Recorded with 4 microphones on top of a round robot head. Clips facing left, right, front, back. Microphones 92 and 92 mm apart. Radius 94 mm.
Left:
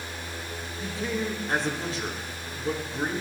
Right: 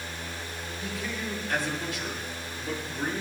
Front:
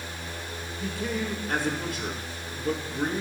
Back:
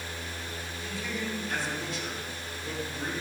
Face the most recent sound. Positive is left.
turn(degrees=35)